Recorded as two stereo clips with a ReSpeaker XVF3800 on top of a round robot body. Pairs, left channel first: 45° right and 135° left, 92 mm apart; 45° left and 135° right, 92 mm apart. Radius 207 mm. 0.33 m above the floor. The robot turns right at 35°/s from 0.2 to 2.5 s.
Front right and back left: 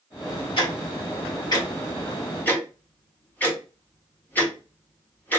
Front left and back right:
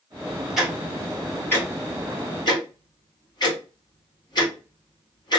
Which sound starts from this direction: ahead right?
Ticking, at 0.6 s.